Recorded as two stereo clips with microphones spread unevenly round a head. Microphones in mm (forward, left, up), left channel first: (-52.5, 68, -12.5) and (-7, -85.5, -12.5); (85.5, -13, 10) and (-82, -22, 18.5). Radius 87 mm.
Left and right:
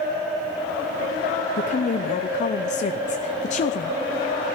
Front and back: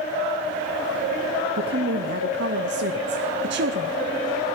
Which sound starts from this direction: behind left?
A woman speaking, at 1.6 s.